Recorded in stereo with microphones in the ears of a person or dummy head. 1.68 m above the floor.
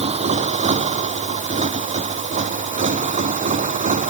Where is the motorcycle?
30° right (ahead or behind); by 4.1 s 35° right (ahead or behind).